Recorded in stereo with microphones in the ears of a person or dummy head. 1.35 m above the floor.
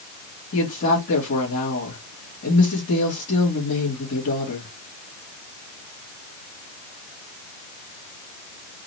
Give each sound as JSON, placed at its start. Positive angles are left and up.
{"t": 0.5, "sound": "a woman speaking", "side_deg": 65, "distance_m": 2.5}